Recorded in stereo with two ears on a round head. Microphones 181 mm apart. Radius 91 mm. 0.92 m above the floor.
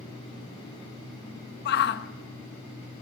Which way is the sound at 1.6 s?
50° left (ahead or behind).